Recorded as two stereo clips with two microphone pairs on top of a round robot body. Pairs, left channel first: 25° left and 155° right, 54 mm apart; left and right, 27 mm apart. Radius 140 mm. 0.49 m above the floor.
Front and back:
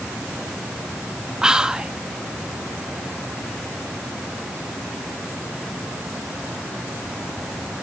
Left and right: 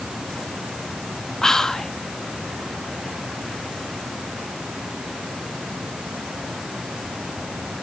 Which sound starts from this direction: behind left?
Whispering, at 1.4 s.